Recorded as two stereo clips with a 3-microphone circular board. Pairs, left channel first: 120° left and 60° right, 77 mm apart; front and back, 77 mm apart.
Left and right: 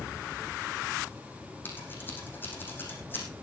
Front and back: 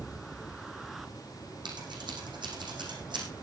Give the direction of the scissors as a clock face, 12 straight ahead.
6 o'clock.